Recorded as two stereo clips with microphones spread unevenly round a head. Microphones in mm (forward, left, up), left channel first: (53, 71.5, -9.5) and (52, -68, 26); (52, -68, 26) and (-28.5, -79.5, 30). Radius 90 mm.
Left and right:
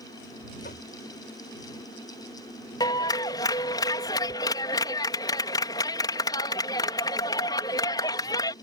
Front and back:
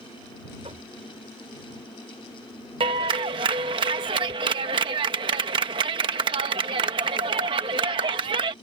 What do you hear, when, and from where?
0.6 s knocking: 140° left
2.8 s a clap: 165° left